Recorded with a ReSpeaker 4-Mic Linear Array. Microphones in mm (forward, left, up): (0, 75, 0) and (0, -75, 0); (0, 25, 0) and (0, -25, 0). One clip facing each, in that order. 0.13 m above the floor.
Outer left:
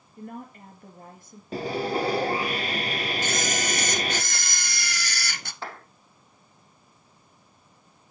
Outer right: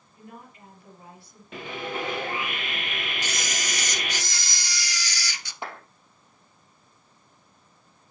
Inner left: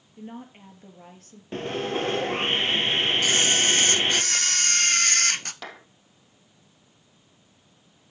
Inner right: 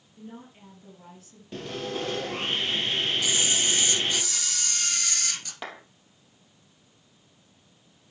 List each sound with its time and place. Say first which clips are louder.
0.2 s a woman speaking: outer left 7 dB, inner left 4 dB; 50° left (ahead or behind), 3.5 m
1.5 s sawing: outer left 6 dB, inner left 5 dB; 35° left (ahead or behind), 0.9 m
3.2 s a camera shutter: outer left 6 dB, inner left 4 dB; 55° left (ahead or behind), 0.8 m
5.6 s a clap: outer right 1 dB, inner right 1 dB; 15° right (ahead or behind), 4 m